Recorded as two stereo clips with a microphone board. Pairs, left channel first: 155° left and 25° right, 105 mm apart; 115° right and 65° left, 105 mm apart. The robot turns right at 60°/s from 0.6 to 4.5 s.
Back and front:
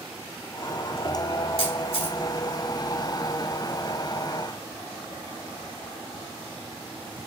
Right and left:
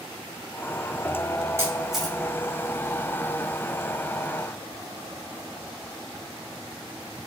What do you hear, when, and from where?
1.6 s a camera shutter: 130° left, 3.5 m; by 2.2 s 165° left, 3.5 m